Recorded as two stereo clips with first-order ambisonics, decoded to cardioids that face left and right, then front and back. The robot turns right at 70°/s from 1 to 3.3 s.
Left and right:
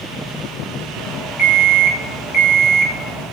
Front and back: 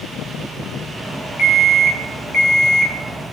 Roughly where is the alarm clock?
Ahead.